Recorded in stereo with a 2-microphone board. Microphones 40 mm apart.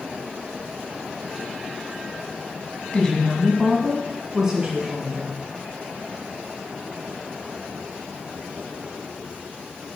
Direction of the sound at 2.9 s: 20° left (ahead or behind).